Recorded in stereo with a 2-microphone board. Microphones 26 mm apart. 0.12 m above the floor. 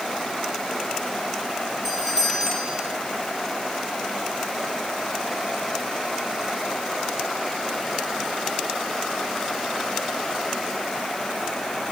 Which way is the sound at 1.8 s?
20° right (ahead or behind).